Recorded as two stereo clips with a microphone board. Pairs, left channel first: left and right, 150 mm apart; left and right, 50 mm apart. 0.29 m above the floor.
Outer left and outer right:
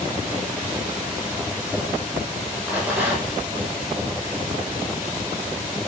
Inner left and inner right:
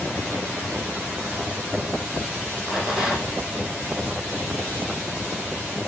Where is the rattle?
10° right (ahead or behind), 4.5 m.